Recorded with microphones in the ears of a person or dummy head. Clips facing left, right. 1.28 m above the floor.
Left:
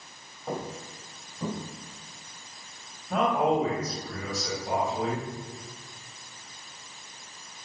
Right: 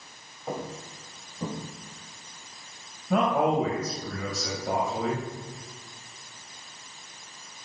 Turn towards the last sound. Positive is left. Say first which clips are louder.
# right 1 dB
turn(degrees=-70)  # may be behind; listen again after turning